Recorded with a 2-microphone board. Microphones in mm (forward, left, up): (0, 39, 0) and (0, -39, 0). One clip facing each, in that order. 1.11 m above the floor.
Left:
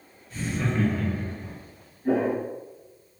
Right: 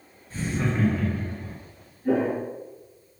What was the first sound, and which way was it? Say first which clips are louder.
Laughter: right 1 dB; 35° right (ahead or behind).